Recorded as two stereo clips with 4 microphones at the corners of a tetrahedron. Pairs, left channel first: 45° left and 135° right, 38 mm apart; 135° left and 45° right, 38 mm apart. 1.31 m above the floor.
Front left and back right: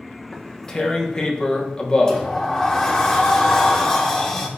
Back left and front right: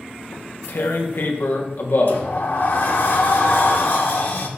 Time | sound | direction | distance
0.3 | tearing paper | 115° left | 1.2 m
2.1 | a sliding door | 120° left | 1.6 m